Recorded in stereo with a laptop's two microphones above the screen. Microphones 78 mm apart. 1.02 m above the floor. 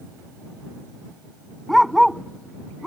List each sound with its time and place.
1.7 s a dog barking: centre (ahead or behind)